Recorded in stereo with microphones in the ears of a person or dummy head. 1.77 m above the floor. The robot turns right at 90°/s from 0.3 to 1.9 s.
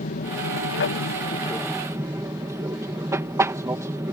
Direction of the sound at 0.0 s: 50° left.